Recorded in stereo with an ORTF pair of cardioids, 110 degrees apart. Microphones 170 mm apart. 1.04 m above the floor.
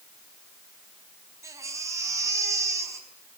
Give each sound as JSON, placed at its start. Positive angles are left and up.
{"t": 1.4, "sound": "a baby crying", "azimuth_deg": -15, "distance_m": 5.0}